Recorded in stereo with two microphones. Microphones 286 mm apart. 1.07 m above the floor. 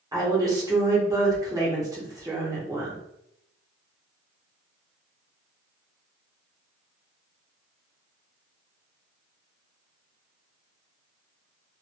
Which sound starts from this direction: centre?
A woman speaking, at 0.1 s.